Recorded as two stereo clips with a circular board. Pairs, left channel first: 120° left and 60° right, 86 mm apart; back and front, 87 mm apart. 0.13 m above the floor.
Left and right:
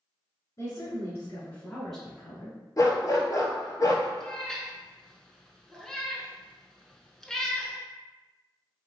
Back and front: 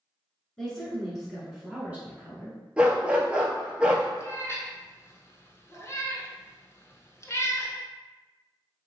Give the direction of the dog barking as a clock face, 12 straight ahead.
9 o'clock.